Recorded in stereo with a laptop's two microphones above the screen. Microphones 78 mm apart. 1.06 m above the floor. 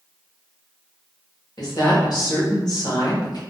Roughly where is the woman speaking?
Left.